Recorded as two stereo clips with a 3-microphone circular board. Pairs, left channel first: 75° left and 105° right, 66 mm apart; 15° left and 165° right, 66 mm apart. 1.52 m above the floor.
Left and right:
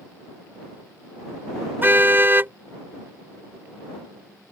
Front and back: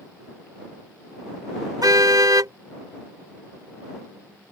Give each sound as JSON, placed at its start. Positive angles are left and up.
{"t": 1.8, "sound": "a car horn", "azimuth_deg": -160}